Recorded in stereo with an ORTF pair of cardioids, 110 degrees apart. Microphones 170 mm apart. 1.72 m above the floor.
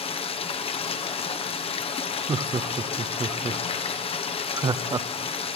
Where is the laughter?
25° right, 0.7 m.